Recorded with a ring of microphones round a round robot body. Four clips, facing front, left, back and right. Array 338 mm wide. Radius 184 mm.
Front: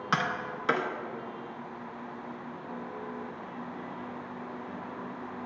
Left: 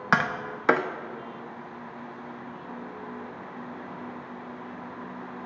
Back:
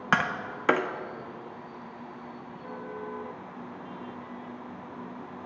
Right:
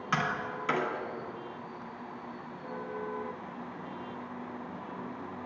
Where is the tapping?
120° left, 0.7 m.